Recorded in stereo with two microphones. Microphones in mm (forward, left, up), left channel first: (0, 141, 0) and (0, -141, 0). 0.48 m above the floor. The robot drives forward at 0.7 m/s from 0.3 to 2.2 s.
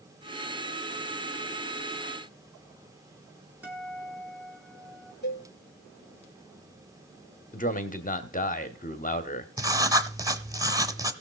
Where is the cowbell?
35° left (ahead or behind), 1.9 m.